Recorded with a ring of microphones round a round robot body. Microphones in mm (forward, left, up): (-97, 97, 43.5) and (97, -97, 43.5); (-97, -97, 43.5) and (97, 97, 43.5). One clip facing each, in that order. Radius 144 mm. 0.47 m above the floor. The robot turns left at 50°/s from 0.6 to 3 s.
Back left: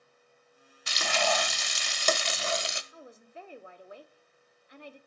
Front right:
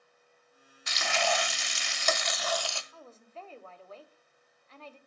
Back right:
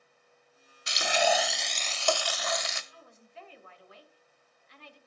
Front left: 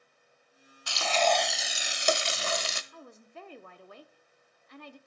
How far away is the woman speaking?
About 1.2 m.